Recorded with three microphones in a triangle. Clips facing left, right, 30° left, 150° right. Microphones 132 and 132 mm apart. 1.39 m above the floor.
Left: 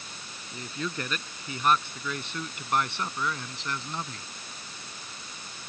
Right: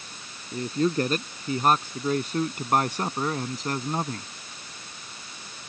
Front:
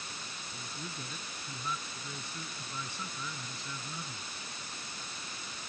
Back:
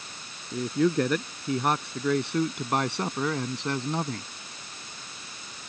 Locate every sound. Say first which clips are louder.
0.5 s a man speaking: right 11 dB, back 23 dB; 140° right; by 4.3 s 135° right